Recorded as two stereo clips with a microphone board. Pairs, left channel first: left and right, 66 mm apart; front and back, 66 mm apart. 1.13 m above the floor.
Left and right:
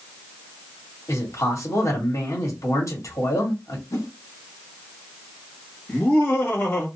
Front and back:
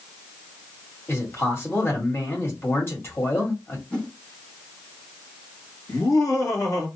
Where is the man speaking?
50° left, 1.8 m.